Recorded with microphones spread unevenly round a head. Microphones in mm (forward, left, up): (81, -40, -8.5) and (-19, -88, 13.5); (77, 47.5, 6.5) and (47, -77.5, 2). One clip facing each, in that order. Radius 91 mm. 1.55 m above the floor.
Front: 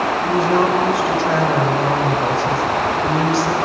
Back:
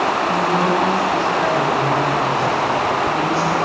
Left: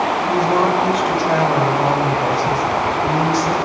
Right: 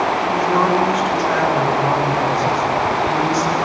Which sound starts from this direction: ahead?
A woman speaking, at 0.2 s.